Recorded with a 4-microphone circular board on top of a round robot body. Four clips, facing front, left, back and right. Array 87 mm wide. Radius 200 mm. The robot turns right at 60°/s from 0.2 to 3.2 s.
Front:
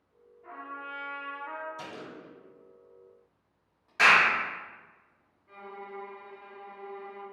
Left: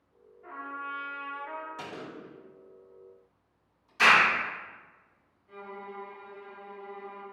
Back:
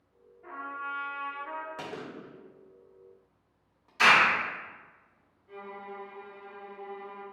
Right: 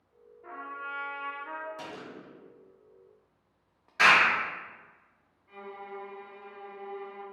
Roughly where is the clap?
Ahead right.